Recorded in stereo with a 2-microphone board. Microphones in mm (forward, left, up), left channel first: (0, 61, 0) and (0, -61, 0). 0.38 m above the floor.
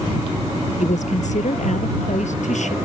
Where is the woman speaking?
75° left (ahead or behind).